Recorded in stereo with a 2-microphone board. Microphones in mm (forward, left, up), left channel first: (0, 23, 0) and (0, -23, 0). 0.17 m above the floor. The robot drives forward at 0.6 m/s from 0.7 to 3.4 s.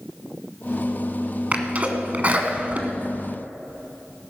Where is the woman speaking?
I don't hear a woman speaking.